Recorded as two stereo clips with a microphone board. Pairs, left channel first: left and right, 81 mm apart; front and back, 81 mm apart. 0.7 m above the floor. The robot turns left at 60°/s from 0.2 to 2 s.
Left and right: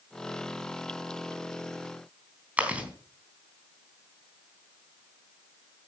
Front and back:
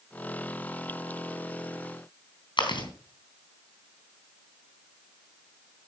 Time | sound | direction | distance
2.6 | chewing | 15° right | 3.5 m